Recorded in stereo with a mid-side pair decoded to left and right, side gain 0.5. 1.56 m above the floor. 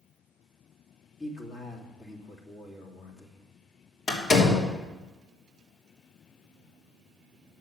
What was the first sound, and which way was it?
A man speaking, 40° left.